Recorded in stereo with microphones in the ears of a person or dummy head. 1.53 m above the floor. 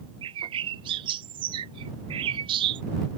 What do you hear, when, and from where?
0.2 s a bird: 30° right (ahead or behind)